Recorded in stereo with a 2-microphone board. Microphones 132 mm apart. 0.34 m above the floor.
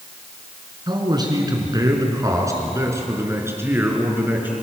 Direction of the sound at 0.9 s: 35° right (ahead or behind).